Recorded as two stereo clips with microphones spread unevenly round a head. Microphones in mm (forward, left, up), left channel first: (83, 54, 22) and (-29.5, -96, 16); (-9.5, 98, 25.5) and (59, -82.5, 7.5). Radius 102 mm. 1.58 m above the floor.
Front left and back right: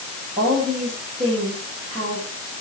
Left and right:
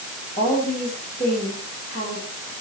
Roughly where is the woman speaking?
Behind.